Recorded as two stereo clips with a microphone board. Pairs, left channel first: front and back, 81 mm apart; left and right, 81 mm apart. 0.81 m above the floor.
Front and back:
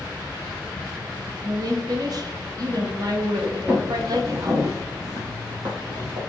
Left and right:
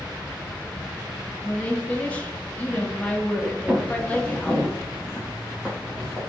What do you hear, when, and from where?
0.0 s an insect: 105° right, 1.2 m
1.4 s a woman speaking: 160° left, 0.8 m
3.7 s footsteps: 140° right, 0.8 m; by 6.2 s 175° right, 1.8 m